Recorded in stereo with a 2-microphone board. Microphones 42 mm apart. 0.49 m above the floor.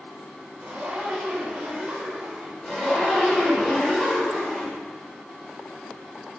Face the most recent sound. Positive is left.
turn(degrees=20)  # may be behind; listen again after turning